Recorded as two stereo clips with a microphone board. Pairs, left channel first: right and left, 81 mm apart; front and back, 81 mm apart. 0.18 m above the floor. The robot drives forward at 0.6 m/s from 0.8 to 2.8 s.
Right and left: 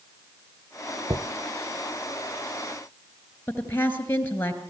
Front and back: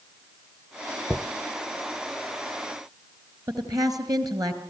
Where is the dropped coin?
90° left, 0.6 m; by 1.2 s 100° left, 0.6 m.